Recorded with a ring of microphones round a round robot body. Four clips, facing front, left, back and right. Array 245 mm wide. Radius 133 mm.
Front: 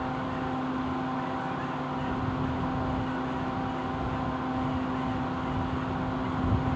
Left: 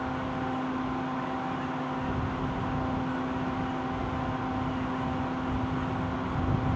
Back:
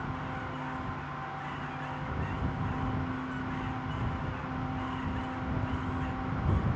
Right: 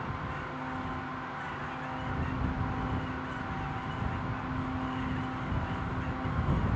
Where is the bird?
I don't hear a bird.